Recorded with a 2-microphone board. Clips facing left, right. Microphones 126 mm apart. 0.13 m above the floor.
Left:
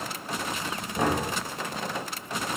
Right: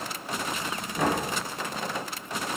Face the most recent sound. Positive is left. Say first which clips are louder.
# even
turn(degrees=25)  # may be behind; listen again after turning